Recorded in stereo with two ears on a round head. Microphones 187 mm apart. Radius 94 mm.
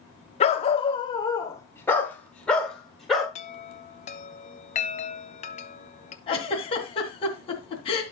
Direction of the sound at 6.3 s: 30° left (ahead or behind).